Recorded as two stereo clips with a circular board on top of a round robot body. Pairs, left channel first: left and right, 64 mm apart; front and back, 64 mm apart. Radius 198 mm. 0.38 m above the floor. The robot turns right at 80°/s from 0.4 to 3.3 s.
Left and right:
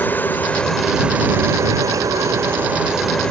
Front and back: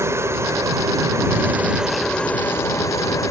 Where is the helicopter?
145° left; by 3.3 s 15° left.